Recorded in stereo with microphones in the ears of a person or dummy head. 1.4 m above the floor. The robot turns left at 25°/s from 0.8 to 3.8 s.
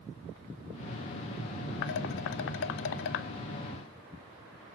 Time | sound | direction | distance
1.8 | dishes clattering | 60° left (ahead or behind) | 0.9 m